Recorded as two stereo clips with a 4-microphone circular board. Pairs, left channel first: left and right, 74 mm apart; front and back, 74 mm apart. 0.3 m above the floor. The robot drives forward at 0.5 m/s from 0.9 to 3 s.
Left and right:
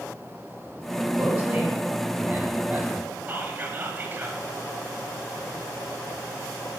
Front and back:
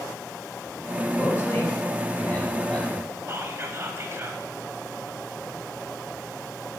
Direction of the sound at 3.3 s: 140° right.